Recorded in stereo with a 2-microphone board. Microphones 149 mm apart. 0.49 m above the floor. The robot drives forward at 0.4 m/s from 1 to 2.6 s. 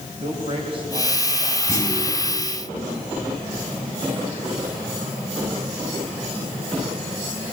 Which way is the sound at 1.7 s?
20° left (ahead or behind).